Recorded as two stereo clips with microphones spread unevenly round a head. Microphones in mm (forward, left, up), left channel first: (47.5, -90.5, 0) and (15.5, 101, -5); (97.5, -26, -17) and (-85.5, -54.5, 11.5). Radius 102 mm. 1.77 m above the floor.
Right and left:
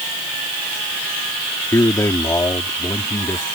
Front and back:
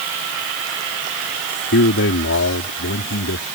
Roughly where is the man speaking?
Ahead.